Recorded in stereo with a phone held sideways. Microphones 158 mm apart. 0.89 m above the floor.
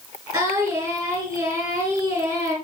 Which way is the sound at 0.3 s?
15° right (ahead or behind).